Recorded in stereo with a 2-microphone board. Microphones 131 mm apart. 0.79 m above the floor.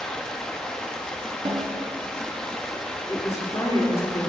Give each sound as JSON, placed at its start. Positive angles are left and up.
{"t": 0.0, "sound": "running water", "side_deg": 5, "distance_m": 0.7}
{"t": 1.4, "sound": "a snare drum", "side_deg": -40, "distance_m": 0.9}
{"t": 3.1, "sound": "a woman speaking", "side_deg": 25, "distance_m": 2.0}